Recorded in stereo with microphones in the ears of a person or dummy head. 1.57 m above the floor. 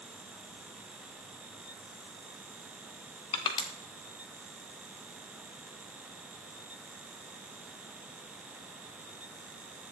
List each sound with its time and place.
3.3 s crushing: 25° left (ahead or behind), 1.5 m